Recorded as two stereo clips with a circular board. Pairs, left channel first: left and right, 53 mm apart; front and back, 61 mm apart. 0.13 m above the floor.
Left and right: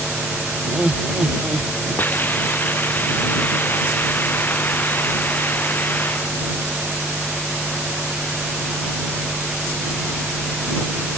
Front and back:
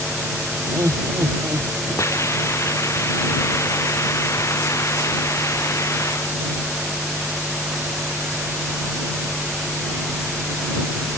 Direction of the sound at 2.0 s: 40° left.